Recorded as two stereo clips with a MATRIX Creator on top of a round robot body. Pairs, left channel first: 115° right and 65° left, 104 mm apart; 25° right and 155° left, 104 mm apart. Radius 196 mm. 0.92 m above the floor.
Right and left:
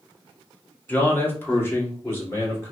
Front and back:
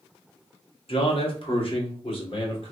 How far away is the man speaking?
About 1.7 m.